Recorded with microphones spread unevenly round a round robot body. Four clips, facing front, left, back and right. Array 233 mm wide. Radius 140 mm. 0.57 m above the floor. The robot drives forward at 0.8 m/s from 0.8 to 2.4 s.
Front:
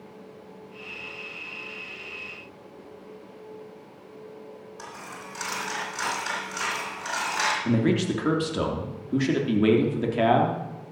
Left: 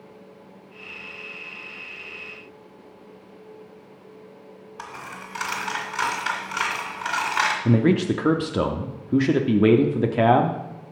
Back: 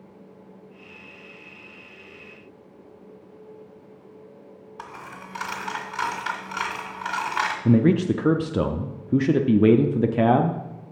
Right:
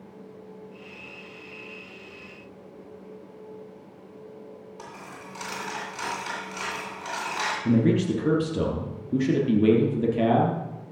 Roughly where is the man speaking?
Left.